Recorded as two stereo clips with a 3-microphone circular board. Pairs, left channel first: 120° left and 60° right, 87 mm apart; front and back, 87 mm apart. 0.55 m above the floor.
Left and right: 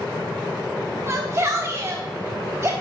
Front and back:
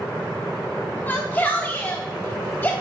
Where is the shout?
50° right, 0.9 m.